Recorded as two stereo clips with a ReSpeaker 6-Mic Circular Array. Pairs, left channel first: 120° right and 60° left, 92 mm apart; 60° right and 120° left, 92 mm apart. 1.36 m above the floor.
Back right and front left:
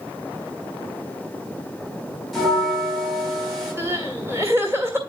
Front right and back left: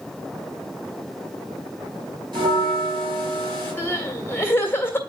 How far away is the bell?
About 4.5 m.